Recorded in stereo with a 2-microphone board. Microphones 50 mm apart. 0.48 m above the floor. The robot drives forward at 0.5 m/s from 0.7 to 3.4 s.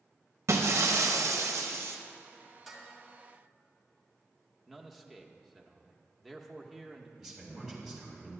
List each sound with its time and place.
0.5 s breaking glass: 65° right (ahead or behind), 0.6 m; by 2.0 s 55° right (ahead or behind), 0.7 m
2.7 s dishes clattering: centre (ahead or behind), 2.0 m
4.7 s a man speaking: 5° right (ahead or behind), 0.7 m
7.2 s a man speaking: 10° right (ahead or behind), 3 m